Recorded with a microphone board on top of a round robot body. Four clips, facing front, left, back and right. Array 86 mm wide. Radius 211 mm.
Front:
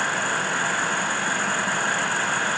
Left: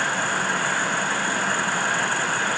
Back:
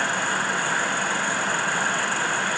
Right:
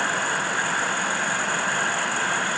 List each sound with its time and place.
Only background noise.